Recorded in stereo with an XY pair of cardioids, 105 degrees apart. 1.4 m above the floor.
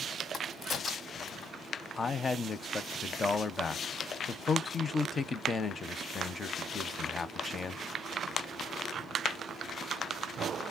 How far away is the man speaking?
About 0.6 m.